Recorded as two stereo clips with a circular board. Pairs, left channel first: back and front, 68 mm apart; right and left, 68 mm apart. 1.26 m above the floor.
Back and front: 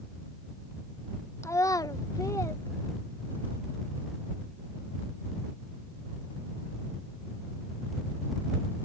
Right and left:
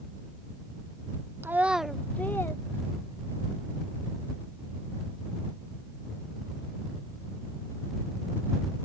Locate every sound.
1.4 s a child speaking: 140° left; by 3.5 s 120° right